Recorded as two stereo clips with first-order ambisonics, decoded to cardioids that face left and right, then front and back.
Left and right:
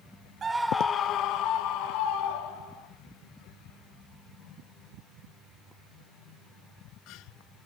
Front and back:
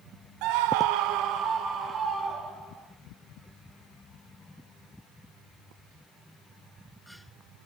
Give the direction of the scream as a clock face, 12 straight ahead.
5 o'clock.